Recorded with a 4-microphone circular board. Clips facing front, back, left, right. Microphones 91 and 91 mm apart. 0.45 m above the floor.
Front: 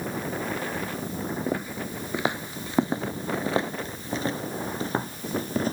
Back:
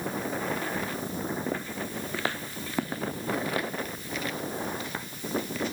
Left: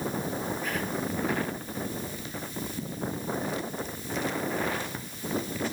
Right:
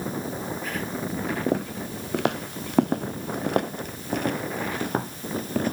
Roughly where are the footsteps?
Right.